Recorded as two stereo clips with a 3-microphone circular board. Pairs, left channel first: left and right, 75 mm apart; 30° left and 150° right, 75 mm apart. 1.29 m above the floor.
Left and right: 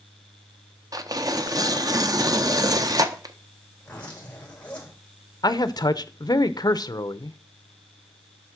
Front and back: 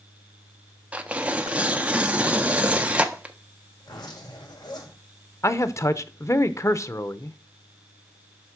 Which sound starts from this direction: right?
Tearing paper, at 0.9 s.